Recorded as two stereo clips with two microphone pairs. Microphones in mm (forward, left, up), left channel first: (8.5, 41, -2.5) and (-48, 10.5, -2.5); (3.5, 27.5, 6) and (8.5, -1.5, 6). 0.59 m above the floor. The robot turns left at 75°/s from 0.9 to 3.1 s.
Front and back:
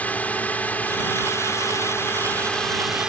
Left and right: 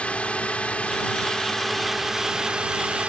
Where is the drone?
85° left; by 3.1 s 80° right.